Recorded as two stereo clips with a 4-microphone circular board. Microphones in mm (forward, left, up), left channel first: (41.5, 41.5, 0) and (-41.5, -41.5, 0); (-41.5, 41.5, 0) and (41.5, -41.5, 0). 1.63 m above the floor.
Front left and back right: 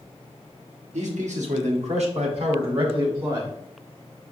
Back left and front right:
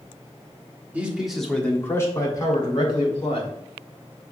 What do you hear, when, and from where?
0.9 s a man speaking: 120° right, 1.0 m; by 3.5 s 175° left, 1.7 m